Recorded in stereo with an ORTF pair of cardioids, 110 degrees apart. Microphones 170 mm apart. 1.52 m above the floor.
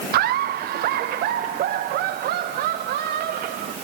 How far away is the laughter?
About 0.9 m.